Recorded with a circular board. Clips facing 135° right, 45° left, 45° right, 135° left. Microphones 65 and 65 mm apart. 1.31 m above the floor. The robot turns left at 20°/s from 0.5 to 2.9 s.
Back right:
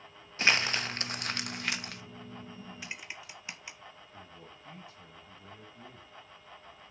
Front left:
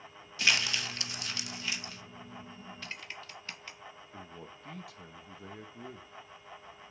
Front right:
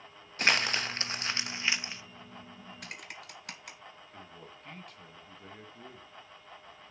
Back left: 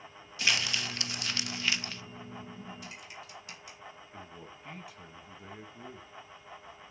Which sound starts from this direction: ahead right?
Typing on a keyboard, at 2.8 s.